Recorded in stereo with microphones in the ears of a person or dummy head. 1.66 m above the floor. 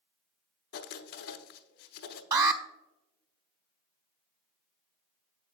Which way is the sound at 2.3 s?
20° right (ahead or behind).